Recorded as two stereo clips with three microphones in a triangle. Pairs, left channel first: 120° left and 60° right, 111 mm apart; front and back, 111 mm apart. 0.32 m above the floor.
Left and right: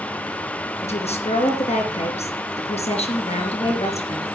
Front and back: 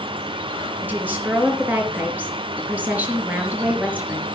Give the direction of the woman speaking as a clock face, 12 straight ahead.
8 o'clock.